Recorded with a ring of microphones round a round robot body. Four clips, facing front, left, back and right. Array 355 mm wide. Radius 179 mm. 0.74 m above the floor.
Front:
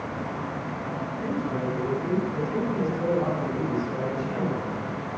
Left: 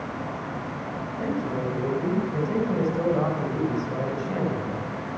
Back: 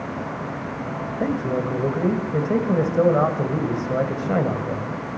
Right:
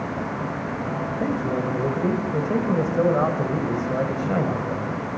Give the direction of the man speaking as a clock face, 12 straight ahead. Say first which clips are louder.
Right 2 dB, back 6 dB; 5 o'clock.